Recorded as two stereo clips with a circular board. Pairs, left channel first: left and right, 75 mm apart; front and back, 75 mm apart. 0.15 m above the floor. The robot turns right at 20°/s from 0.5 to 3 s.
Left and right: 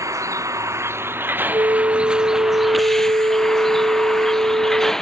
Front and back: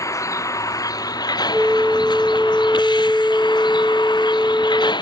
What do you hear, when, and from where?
0.0 s a vehicle: 45° right; by 5.0 s 5° left
1.5 s a flute: 110° right; by 4.9 s 80° right